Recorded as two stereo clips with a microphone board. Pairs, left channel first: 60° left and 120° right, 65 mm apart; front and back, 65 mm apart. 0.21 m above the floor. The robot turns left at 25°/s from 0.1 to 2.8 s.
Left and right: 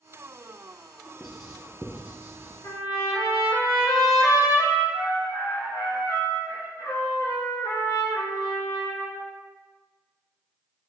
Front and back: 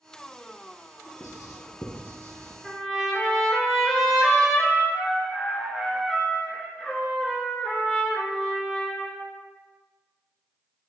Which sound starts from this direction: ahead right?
Writing, at 1.2 s.